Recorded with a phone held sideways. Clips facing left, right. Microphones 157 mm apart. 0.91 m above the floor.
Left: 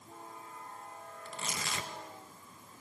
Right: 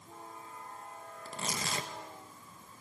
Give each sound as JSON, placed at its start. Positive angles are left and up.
{"t": 1.2, "sound": "tearing paper", "side_deg": -35, "distance_m": 1.1}